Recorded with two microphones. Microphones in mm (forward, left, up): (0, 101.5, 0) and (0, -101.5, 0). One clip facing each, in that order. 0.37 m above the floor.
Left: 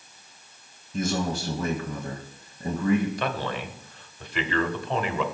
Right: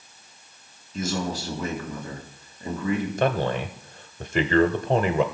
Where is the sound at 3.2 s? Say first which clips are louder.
Right 6 dB; 45° right (ahead or behind), 1.1 m.